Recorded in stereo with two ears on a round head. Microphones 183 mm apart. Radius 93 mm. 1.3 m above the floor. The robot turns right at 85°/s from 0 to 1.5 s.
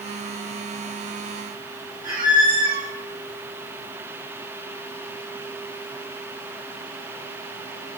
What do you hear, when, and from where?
2.0 s a squeak: 40° right (ahead or behind), 0.9 m